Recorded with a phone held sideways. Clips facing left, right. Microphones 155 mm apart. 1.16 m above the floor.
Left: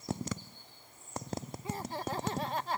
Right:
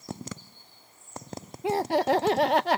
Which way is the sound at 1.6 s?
80° right.